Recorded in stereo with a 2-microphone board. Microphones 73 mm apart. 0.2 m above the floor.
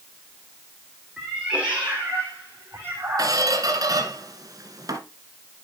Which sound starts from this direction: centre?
A cat meowing, at 1.2 s.